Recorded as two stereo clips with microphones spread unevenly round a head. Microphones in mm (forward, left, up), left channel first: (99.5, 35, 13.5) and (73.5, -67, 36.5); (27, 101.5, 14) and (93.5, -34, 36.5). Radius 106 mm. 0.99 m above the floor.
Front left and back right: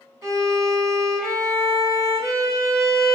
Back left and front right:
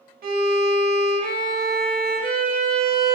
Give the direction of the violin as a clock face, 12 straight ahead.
1 o'clock.